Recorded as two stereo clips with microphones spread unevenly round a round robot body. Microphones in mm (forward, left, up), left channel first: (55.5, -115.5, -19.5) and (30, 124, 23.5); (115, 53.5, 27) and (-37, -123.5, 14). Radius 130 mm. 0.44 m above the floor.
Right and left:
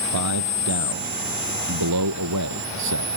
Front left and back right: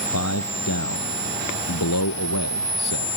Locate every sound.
0.1 s a man speaking: 85° left